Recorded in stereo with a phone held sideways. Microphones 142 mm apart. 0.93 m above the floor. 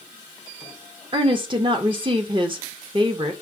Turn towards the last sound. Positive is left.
turn(degrees=-35)  # may be behind; listen again after turning